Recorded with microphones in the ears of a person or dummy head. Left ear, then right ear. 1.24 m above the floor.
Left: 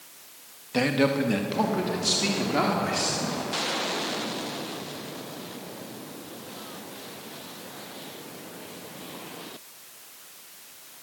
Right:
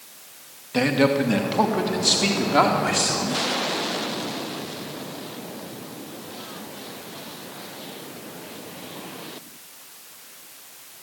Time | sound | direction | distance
0.7 | a man speaking | 5° left (ahead or behind) | 1.9 m